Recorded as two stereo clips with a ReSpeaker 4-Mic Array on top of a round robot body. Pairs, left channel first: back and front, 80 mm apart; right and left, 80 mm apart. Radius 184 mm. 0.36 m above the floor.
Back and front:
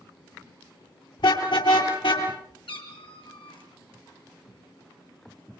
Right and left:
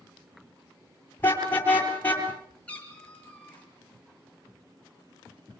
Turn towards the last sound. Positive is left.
turn(degrees=-165)